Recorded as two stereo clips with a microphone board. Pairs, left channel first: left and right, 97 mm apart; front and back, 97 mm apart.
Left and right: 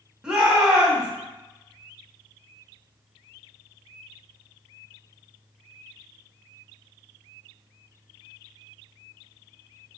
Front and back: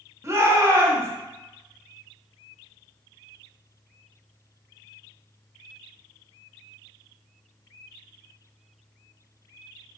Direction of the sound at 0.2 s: 165° right.